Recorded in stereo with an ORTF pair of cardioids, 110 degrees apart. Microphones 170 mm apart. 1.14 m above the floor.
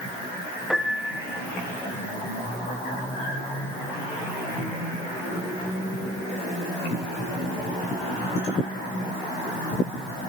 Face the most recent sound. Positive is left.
turn(degrees=0)